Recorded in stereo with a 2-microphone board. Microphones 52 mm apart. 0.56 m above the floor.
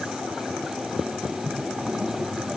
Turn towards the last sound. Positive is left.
No sound to turn to.